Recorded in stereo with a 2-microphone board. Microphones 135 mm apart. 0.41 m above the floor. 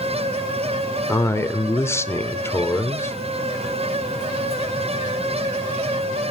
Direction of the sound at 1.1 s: 20° left (ahead or behind).